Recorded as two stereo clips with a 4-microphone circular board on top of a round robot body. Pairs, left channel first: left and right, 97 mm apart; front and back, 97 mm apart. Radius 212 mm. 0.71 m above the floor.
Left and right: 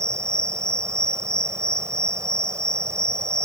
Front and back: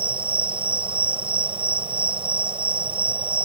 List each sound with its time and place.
0.0 s an insect: 150° right